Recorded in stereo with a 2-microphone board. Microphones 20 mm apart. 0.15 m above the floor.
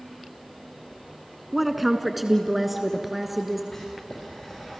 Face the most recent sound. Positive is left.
turn(degrees=20)  # may be behind; listen again after turning